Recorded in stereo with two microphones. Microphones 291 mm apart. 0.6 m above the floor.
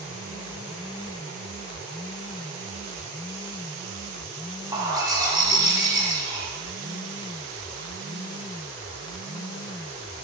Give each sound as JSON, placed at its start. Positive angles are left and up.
{"t": 4.7, "sound": "a bird", "side_deg": -15, "distance_m": 0.7}